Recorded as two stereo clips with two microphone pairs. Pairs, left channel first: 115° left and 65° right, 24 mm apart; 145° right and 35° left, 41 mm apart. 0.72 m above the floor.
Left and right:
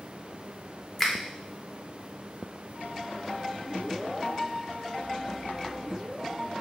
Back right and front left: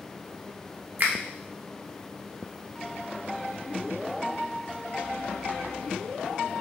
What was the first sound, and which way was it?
A finger snap, 35° left.